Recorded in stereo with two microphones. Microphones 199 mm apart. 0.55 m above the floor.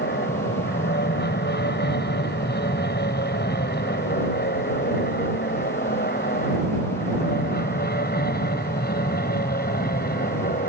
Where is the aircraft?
60° left (ahead or behind); by 10.7 s 50° left (ahead or behind).